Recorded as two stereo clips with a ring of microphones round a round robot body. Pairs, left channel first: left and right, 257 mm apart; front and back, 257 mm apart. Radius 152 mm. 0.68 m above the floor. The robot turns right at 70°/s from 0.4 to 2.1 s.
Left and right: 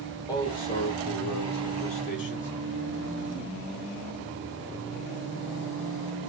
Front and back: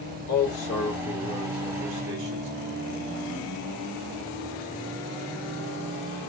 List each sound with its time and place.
0.3 s a man speaking: 15° left, 2 m; by 2.5 s 135° left, 2 m